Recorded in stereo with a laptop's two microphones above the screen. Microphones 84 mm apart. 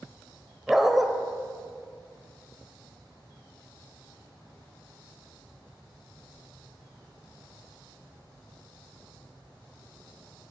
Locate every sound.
0.7 s a dog barking: 5° right (ahead or behind), 1.4 m